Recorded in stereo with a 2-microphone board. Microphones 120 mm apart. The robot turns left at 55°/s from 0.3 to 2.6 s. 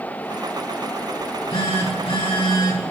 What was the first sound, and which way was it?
A phone buzzing, 135° left.